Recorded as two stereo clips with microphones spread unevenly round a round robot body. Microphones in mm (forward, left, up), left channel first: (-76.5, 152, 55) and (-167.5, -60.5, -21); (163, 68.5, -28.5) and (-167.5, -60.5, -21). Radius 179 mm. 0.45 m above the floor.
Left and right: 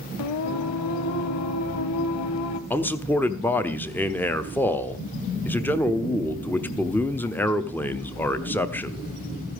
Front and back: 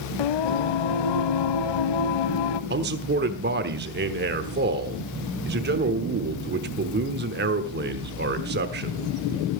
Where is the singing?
45° left, 0.9 m.